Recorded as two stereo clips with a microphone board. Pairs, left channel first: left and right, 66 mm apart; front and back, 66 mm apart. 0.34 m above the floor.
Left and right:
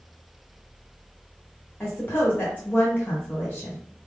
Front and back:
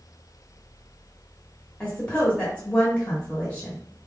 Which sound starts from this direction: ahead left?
A woman speaking, at 1.8 s.